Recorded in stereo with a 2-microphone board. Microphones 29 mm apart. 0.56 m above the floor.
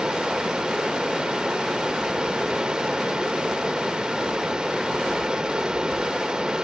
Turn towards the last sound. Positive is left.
turn(degrees=-25)  # may be behind; listen again after turning